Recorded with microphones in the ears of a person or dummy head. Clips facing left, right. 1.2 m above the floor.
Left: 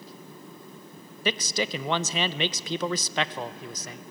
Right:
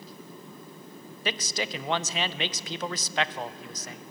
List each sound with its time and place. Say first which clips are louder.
1.2 s a man speaking: left 4 dB; 80° left, 0.6 m